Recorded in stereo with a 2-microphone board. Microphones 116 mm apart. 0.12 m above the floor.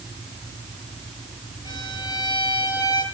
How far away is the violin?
About 5.5 m.